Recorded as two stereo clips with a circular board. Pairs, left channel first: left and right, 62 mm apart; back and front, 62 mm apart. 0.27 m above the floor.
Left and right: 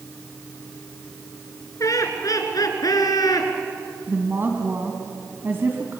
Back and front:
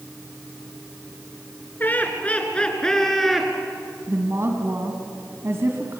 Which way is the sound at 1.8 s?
120° left.